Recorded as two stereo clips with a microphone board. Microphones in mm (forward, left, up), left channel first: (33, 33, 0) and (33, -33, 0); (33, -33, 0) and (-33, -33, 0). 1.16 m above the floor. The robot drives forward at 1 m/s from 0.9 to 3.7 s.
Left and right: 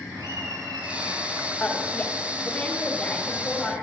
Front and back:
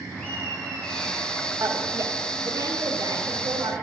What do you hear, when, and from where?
0.1 s laughter: 75° right, 9.5 m; by 1.5 s 80° right, 9 m
1.6 s a woman speaking: 160° left, 2 m; by 3.7 s 170° left, 4 m